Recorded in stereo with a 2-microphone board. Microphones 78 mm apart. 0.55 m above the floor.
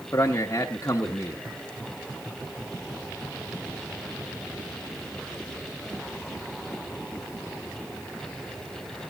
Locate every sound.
0.1 s a man speaking: 35° left (ahead or behind), 0.9 m